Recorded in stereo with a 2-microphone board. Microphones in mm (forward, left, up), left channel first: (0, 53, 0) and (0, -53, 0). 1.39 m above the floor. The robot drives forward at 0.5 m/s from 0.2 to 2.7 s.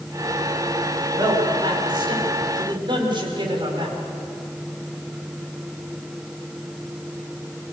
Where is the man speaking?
40° right (ahead or behind), 5.5 m; by 4.0 s 50° right (ahead or behind), 5 m.